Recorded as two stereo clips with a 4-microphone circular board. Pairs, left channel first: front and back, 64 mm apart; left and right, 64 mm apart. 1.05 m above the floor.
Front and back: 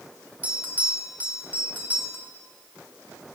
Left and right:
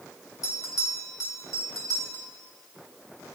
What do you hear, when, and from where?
0.4 s a bell: 120° left, 1.6 m